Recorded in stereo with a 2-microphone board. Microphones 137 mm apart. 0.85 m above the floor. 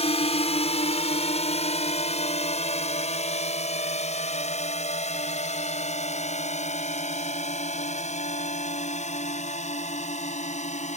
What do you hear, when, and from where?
0.0 s a drone: 50° left (ahead or behind); by 11.0 s 60° left (ahead or behind)